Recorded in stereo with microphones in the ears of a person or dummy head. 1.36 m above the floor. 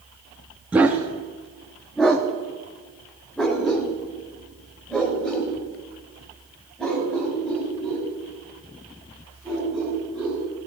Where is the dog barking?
5° right (ahead or behind), 0.8 m; by 10.4 s 5° left (ahead or behind), 6.5 m.